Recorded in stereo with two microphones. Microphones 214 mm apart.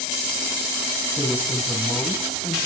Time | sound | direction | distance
1.2 | a woman speaking | centre (ahead or behind) | 2.5 m